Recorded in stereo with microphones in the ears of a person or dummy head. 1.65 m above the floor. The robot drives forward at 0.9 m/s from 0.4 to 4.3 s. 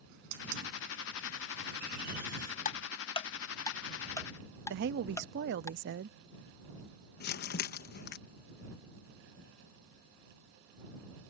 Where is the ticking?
35° left (ahead or behind); by 5.7 s 15° left (ahead or behind).